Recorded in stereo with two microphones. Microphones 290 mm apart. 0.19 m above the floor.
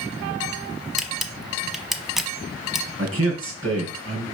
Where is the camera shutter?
Centre (ahead or behind), 0.9 m.